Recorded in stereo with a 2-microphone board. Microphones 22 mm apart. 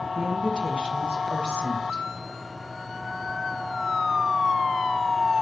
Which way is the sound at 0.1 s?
45° right (ahead or behind).